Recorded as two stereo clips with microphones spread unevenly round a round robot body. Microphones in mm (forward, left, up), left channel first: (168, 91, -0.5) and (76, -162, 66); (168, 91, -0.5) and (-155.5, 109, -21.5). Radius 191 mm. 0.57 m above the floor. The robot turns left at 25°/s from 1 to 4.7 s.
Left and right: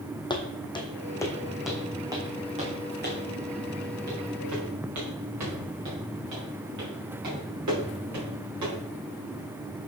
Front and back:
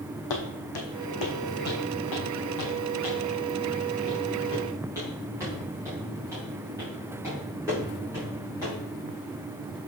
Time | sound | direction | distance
0.3 | footsteps | 10° right | 1.8 m